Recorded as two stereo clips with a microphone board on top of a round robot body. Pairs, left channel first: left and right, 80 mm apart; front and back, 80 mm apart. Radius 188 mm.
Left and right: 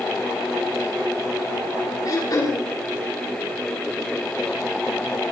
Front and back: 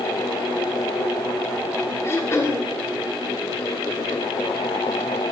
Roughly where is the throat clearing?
Ahead left.